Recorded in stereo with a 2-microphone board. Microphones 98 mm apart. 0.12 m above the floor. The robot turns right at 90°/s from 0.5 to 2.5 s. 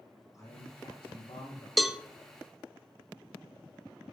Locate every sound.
0.3 s a man speaking: 35° left, 5 m; by 1.7 s 140° left, 5 m
1.8 s a cowbell: centre (ahead or behind), 0.5 m; by 2.0 s 5° right (ahead or behind), 0.5 m